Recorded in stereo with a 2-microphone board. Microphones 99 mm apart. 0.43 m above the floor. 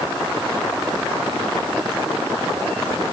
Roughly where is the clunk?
I don't hear a clunk.